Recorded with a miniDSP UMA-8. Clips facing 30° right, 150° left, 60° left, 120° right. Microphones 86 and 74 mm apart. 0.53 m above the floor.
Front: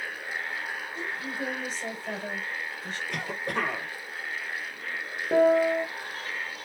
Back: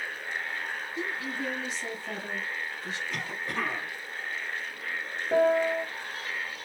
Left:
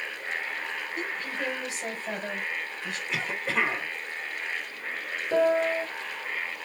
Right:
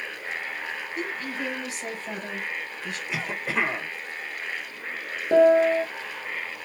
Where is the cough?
35° right, 1.6 m.